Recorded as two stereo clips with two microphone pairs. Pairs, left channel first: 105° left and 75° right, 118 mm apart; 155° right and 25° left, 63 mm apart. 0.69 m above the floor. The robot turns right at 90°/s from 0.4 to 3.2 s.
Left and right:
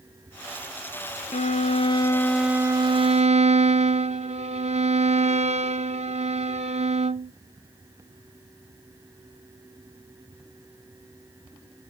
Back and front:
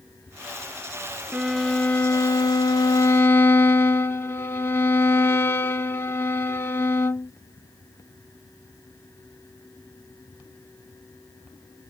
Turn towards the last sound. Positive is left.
turn(degrees=-95)